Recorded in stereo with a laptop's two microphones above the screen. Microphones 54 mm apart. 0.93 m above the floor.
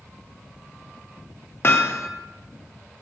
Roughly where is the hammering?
Left.